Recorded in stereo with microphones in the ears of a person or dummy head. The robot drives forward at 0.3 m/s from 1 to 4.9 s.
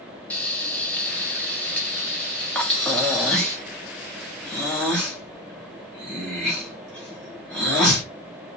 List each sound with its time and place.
0.3 s frying: 5° left (ahead or behind), 0.6 m
2.5 s breathing: centre (ahead or behind), 0.6 m